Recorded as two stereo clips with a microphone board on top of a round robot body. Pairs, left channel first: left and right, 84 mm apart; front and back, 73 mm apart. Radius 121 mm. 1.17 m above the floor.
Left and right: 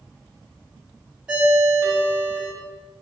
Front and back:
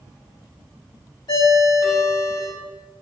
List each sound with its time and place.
1.3 s a ringtone: 10° right, 1.8 m